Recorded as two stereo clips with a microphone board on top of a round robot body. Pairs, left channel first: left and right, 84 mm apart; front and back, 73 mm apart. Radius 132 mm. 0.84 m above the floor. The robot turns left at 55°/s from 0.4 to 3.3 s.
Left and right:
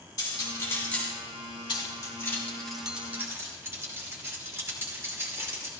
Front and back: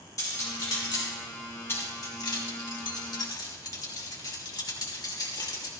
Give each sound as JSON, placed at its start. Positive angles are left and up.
{"t": 0.2, "sound": "cutlery clinking", "azimuth_deg": 45, "distance_m": 5.0}
{"t": 1.7, "sound": "keys jangling", "azimuth_deg": 60, "distance_m": 2.5}